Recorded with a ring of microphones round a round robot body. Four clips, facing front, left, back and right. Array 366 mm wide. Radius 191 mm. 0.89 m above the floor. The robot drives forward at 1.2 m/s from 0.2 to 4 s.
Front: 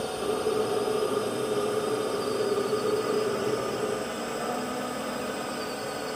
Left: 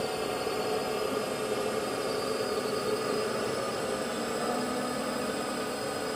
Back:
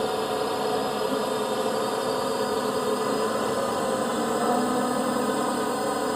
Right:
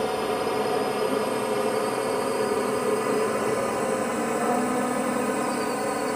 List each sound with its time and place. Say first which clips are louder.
0.0 s a drone: right 6 dB, back 2 dB; 130° right; by 6.2 s 135° right